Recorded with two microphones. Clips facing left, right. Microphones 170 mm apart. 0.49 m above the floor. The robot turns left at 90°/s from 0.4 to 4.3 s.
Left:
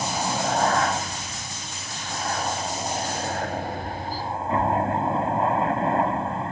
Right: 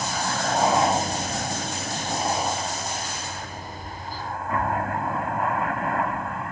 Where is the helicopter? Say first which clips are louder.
Left 1 dB; 10° left (ahead or behind); by 6.5 s 30° left (ahead or behind).